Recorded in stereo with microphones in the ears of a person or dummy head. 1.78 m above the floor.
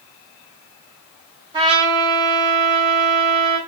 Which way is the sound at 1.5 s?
25° right (ahead or behind).